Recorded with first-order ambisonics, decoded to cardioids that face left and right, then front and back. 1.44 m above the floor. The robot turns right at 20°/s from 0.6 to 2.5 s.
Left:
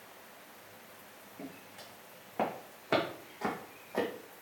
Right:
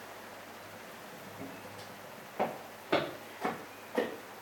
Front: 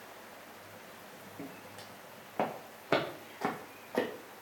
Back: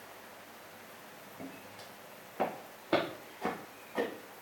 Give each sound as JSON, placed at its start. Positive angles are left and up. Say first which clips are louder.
{"t": 1.4, "sound": "footsteps", "louder": "even, front 1 dB", "azimuth_deg": 5, "distance_m": 4.0}